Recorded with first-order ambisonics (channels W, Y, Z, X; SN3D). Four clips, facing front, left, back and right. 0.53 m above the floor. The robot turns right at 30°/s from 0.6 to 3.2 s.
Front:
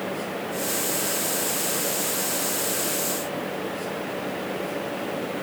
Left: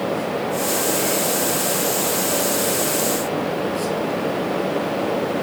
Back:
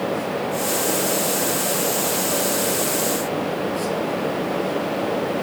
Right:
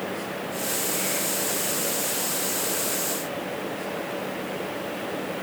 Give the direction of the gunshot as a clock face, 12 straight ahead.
I don't hear a gunshot.